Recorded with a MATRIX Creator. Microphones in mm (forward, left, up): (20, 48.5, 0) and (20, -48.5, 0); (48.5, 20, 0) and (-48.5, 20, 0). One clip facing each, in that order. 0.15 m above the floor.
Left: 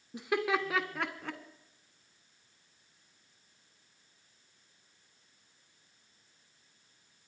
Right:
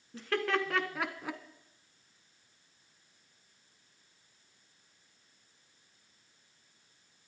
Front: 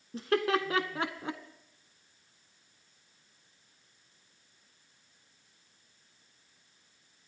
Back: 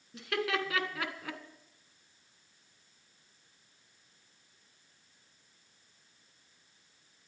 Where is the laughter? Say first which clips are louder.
Left 1 dB, front 5 dB; 25° left, 1.3 m; by 1.4 s 25° right, 1.1 m.